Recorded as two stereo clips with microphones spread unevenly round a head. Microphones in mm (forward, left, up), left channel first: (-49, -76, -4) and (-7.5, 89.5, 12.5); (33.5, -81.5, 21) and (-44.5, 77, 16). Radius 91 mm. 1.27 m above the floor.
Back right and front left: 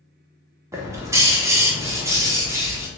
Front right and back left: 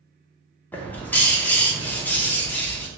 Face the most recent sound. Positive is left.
turn(degrees=15)